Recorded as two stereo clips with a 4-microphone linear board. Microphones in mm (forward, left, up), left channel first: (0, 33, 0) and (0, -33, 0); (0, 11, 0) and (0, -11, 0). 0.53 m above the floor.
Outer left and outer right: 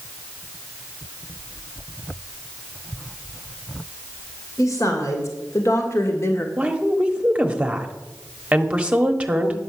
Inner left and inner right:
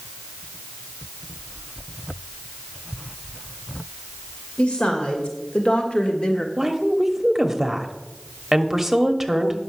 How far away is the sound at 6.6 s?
About 1.2 m.